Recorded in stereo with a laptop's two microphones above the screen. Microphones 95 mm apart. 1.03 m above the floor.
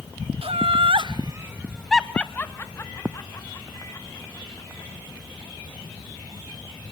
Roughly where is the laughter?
Right.